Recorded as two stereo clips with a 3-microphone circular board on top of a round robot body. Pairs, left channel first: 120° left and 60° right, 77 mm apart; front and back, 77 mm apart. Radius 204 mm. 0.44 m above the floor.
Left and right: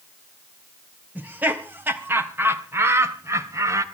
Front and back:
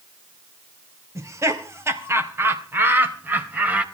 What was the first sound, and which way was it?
Laughter, 130° right.